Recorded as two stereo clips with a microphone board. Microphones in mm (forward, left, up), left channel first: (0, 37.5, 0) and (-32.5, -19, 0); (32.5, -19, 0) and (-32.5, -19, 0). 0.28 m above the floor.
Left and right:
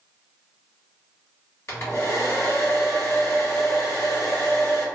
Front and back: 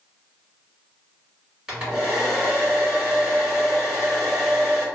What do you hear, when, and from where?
1.7 s a hair dryer: 100° left, 1.7 m